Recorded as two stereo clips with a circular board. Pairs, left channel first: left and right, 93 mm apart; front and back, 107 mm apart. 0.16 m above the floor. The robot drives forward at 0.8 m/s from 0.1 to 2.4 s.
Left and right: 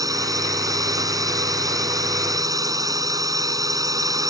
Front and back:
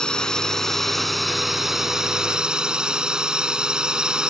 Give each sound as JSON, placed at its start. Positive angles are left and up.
{"t": 0.0, "sound": "a drone", "azimuth_deg": -80}